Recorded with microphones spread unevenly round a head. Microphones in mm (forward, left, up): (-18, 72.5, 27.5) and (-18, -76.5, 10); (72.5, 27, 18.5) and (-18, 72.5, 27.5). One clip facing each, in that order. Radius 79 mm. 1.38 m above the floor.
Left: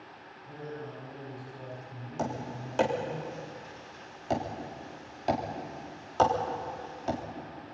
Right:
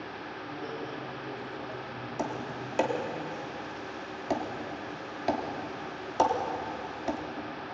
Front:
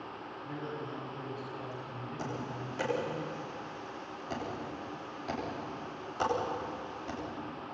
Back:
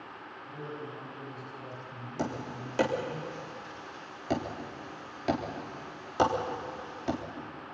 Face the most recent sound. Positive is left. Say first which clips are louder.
# even, back 5 dB
turn(degrees=-170)